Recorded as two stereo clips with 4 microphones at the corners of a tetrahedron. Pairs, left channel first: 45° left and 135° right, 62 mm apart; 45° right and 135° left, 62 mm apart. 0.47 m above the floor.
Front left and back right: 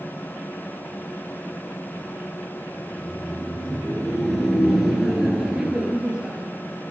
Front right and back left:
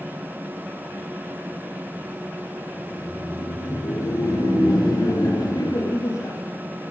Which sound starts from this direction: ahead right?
Laughter, at 2.8 s.